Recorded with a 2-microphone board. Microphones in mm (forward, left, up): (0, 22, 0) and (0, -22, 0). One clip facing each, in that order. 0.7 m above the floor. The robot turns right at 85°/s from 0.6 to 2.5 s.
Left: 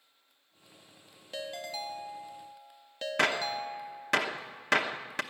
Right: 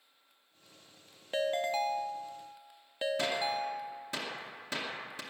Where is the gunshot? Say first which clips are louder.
Left 7 dB; 65° left (ahead or behind), 0.8 m.